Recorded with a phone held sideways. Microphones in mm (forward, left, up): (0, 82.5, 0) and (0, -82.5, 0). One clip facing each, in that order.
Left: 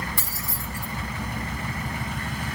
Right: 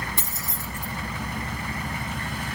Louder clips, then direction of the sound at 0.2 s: Even; 20° right (ahead or behind).